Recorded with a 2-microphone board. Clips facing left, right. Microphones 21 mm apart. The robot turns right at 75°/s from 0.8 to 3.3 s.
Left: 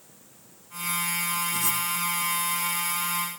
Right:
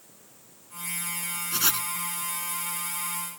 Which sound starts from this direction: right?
Writing, at 1.5 s.